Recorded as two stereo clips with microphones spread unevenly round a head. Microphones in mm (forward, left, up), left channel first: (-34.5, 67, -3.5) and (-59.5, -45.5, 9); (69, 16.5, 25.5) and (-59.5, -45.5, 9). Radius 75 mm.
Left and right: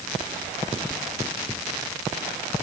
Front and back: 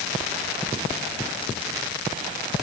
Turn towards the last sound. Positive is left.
No sound to turn to.